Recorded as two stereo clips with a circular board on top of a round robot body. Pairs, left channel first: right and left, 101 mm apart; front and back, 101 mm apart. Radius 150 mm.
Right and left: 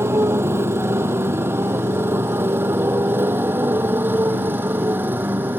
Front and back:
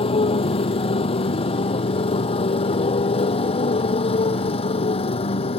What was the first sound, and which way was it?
A motorcycle, 25° left.